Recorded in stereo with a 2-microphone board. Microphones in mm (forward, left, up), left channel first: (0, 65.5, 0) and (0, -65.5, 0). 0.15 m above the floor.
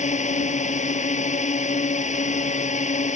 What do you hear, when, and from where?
0.0 s a drone: 65° left (ahead or behind)